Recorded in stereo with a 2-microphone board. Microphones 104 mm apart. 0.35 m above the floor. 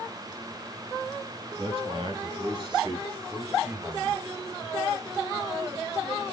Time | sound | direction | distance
1.6 | a man speaking | 55° right (ahead or behind) | 3 m